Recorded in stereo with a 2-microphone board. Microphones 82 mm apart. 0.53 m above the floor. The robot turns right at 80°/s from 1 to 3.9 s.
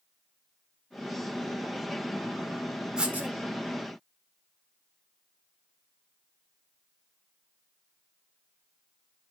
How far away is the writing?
About 1.2 m.